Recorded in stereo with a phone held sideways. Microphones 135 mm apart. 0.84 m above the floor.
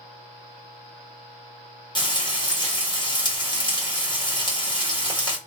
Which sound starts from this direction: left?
Frying, at 1.9 s.